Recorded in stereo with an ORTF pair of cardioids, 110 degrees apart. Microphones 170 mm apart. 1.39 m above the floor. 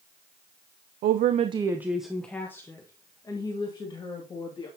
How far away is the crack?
I don't hear a crack.